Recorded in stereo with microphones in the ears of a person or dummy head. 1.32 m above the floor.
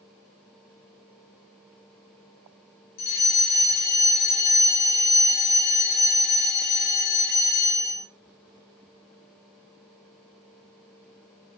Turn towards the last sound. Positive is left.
turn(degrees=50)  # may be behind; listen again after turning